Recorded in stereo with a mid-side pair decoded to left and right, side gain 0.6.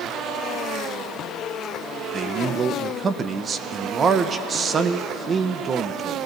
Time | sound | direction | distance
2.1 | a man speaking | 35° right | 0.7 m